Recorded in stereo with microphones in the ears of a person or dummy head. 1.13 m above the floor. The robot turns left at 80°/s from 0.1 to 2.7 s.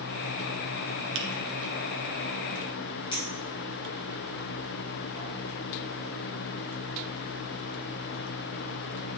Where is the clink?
30° left (ahead or behind), 3 m.